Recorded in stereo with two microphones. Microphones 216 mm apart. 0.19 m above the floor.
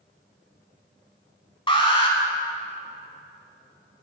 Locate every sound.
1.7 s an alarm: 25° left (ahead or behind), 0.9 m